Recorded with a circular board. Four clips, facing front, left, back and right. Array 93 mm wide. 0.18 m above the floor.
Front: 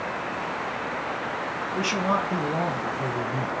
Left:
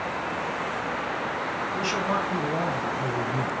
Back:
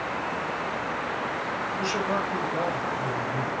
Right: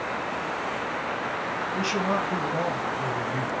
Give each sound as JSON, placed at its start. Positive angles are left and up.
{"t": 1.8, "sound": "a man speaking", "azimuth_deg": -10, "distance_m": 1.9}